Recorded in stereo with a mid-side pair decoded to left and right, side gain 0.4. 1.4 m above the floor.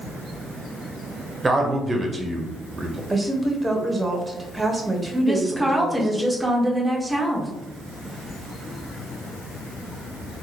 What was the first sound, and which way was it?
A man speaking, 20° right.